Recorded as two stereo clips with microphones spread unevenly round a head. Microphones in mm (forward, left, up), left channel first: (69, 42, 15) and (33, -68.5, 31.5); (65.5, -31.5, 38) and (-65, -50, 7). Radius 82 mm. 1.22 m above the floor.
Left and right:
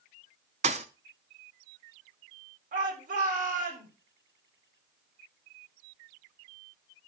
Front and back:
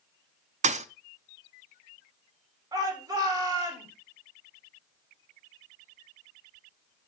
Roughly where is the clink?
No clink in this recording.